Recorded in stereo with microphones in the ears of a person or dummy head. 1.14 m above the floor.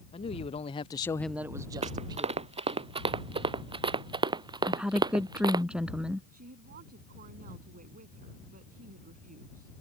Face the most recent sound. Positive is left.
turn(degrees=-50)  # may be behind; listen again after turning